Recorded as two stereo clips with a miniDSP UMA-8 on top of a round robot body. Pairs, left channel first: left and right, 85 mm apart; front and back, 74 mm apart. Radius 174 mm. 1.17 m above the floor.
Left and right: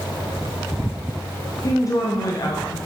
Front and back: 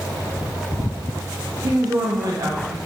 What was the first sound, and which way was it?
A woman speaking, 140° left.